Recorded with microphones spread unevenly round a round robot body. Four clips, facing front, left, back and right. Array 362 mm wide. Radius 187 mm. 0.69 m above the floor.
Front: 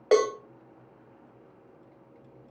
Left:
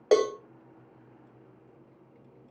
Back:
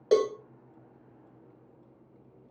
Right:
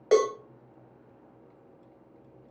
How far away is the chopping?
No chopping in this recording.